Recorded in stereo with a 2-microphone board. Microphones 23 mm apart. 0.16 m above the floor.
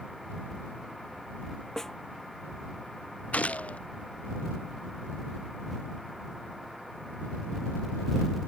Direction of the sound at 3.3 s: 90° left.